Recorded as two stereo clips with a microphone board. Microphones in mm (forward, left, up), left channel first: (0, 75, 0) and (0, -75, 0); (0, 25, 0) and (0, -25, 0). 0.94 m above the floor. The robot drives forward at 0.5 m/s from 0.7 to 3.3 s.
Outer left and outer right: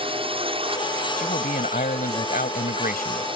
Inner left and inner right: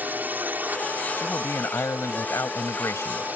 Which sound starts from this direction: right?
A drone, at 0.0 s.